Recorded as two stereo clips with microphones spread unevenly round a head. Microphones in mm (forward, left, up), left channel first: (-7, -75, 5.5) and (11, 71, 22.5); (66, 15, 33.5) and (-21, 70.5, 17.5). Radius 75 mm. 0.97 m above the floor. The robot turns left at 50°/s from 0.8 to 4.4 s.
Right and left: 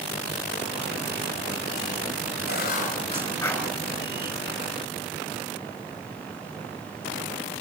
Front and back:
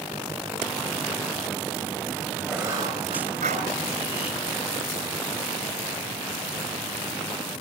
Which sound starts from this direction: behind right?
Writing, at 2.5 s.